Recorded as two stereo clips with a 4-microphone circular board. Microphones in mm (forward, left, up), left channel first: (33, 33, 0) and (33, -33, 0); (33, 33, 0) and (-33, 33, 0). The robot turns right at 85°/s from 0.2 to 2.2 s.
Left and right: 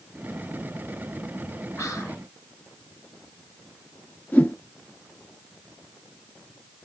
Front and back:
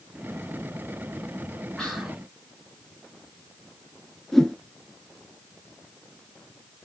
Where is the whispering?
80° left, 1.8 m; by 2.2 s 115° left, 1.8 m.